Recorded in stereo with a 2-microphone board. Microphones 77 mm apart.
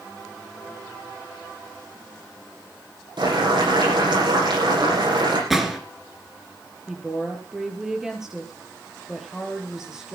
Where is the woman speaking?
5° right (ahead or behind), 4.5 m.